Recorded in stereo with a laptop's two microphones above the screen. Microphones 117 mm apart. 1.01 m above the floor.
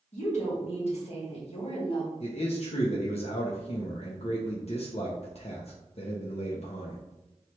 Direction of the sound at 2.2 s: 55° left (ahead or behind).